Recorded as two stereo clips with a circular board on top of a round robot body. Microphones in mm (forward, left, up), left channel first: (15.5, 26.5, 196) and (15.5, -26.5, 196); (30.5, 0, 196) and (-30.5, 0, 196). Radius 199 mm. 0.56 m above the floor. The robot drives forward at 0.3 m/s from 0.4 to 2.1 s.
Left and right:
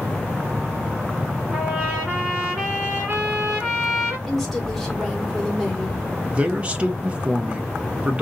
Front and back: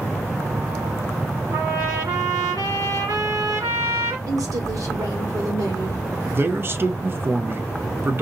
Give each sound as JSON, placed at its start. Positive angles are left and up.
{"t": 1.5, "sound": "a trumpet", "azimuth_deg": -170, "distance_m": 1.9}
{"t": 4.3, "sound": "a woman speaking", "azimuth_deg": 175, "distance_m": 1.9}
{"t": 6.3, "sound": "a man speaking", "azimuth_deg": -150, "distance_m": 0.9}